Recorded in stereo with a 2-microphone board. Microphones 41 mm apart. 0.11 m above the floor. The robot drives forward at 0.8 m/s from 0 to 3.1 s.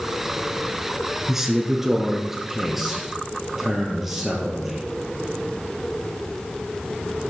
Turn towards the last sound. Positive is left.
turn(degrees=-5)  # may be behind; listen again after turning